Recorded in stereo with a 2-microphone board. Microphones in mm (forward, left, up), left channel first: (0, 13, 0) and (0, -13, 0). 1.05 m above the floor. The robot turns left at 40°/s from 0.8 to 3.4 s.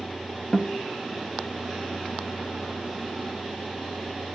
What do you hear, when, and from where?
0.5 s a guitar: 20° left (ahead or behind), 1.2 m